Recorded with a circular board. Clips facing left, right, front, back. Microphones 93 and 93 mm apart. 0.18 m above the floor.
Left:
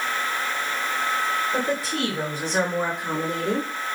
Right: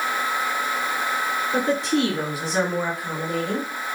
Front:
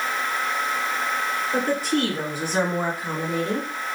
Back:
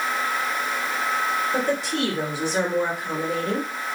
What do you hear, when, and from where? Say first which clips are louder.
1.5 s a woman speaking: right 4 dB, front 1 dB; 35° right, 2 m; by 3.7 s 60° left, 1.8 m